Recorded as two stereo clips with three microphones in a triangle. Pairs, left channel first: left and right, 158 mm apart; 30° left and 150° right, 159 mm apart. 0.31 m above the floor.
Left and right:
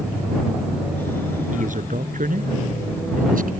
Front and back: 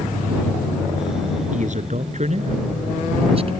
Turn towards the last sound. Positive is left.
turn(degrees=-105)